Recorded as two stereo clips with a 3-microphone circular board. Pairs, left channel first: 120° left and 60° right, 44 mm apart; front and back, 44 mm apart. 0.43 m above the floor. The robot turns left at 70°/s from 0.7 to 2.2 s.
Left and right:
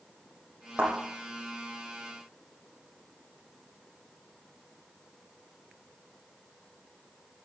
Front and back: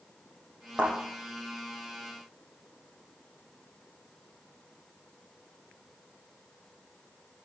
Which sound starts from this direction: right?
A thud, at 0.8 s.